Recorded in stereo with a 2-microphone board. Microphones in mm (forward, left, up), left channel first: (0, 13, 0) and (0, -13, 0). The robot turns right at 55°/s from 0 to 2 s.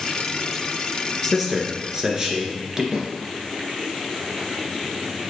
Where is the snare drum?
25° right (ahead or behind), 2 m.